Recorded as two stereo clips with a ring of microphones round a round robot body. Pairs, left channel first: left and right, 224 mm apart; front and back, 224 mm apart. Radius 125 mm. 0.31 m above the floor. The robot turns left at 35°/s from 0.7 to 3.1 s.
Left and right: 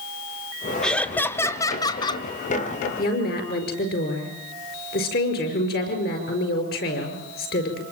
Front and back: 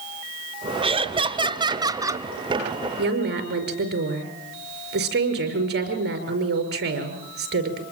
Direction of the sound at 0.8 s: 175° left.